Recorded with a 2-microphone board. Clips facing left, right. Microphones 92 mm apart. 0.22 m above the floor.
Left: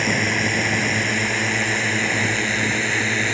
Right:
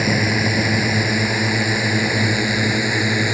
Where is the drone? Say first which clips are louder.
Right 3 dB; 10° right (ahead or behind).